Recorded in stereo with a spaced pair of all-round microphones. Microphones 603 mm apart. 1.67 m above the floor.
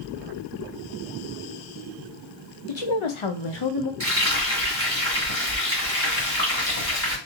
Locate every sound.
2.7 s a woman speaking: 50° left (ahead or behind), 0.7 m; by 3.9 s 35° left (ahead or behind), 0.6 m
4.0 s frying: 20° right (ahead or behind), 1.7 m